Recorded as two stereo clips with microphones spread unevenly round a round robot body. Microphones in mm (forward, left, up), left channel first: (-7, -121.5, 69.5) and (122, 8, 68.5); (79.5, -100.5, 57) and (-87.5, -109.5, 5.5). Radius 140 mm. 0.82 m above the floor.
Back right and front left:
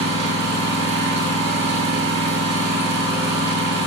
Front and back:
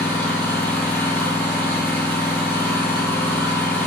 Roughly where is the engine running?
Left.